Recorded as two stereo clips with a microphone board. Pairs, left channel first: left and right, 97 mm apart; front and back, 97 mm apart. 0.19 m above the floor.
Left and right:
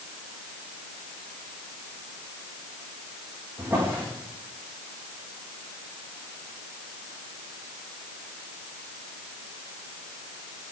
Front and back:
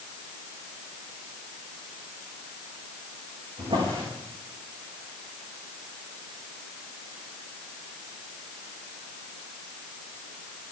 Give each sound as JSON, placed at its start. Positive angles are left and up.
{"t": 3.6, "sound": "a drawer", "azimuth_deg": -160, "distance_m": 7.5}